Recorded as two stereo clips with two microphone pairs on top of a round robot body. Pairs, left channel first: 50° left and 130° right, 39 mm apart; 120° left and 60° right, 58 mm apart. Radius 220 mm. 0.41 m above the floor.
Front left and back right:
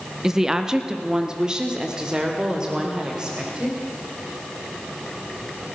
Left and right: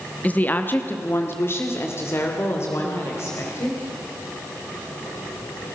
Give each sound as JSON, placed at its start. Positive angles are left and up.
{"t": 0.2, "sound": "a woman speaking", "azimuth_deg": 170, "distance_m": 1.3}